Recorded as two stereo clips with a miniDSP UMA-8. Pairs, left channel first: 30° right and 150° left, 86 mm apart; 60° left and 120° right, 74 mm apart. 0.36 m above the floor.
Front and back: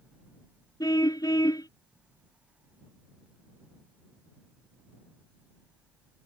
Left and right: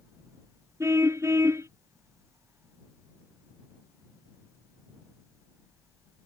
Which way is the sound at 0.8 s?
70° right.